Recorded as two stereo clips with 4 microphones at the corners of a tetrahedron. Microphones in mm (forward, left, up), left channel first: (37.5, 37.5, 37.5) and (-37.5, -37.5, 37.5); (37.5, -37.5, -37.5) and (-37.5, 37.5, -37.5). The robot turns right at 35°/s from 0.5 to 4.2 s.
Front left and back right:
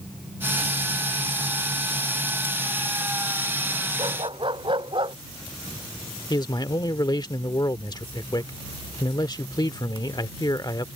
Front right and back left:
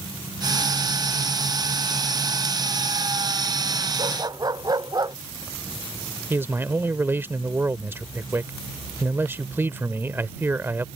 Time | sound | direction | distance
4.0 | a dog barking | straight behind | ?
6.3 | a man speaking | 75° left | ?